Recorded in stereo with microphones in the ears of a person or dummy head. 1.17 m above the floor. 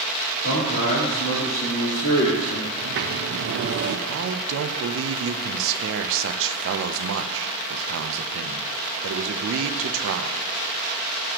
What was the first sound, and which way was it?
A man speaking, 75° left (ahead or behind).